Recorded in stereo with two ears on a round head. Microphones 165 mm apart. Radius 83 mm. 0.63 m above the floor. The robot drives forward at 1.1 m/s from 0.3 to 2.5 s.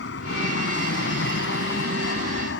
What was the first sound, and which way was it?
An aircraft, 65° left (ahead or behind).